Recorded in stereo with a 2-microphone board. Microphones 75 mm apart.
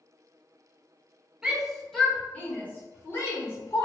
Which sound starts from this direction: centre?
A shout, at 1.4 s.